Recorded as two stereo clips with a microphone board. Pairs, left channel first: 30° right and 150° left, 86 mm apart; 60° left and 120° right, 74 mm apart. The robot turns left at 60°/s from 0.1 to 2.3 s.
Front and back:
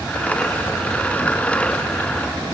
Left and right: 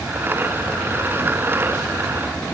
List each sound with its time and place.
Only background noise.